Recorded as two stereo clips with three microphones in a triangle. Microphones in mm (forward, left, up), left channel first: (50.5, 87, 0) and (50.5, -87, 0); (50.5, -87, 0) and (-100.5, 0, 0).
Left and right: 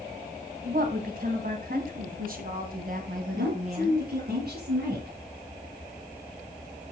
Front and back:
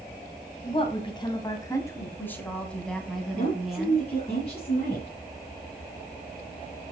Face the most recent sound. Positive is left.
turn(degrees=-85)